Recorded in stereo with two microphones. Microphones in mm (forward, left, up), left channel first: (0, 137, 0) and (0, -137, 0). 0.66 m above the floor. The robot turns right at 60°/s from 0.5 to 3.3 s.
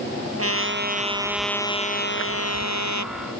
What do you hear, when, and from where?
0.4 s a trumpet: 55° right; by 3.1 s 105° left